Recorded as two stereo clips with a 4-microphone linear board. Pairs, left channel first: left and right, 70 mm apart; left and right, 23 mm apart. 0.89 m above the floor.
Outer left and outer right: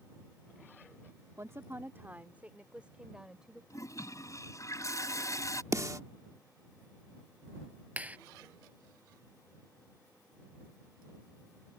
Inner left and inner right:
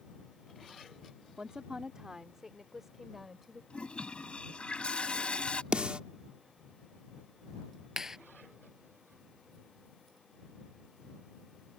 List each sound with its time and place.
1.4 s a woman speaking: 45° right (ahead or behind); by 3.6 s 10° right (ahead or behind)
3.7 s a toilet flushing: 50° left (ahead or behind)
5.7 s a snare drum: 50° right (ahead or behind)
8.0 s a clap: 20° right (ahead or behind)